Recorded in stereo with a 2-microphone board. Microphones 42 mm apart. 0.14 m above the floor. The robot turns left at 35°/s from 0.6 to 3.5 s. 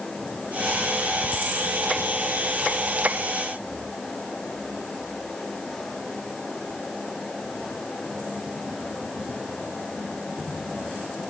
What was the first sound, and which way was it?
Only background noise.